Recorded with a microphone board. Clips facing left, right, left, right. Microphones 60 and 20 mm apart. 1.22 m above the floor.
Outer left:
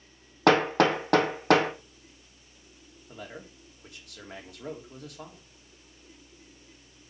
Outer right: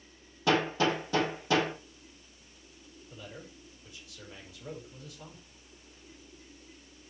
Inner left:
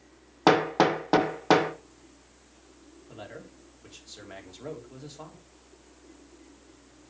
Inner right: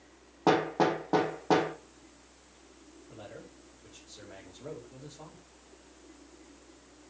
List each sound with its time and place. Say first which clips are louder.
0.5 s hammering: outer left 6 dB, inner left 4 dB; 65° left (ahead or behind), 1.7 m
3.1 s a man speaking: outer left 4 dB, inner left 4 dB; 70° left (ahead or behind), 3 m